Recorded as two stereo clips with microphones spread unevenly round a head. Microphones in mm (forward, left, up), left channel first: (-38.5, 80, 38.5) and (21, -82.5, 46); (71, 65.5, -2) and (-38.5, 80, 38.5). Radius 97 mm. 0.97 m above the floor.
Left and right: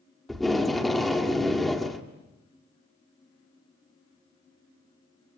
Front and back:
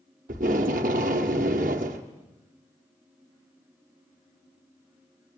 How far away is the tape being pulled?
About 1.7 m.